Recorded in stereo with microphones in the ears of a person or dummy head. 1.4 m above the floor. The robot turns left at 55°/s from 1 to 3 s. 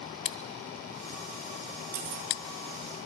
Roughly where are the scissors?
Left.